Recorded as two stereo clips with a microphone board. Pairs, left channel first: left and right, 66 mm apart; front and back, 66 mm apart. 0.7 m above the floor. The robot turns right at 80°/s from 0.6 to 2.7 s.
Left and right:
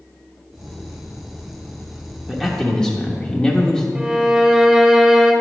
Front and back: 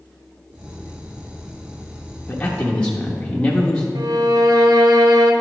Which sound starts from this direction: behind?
A violin, at 4.0 s.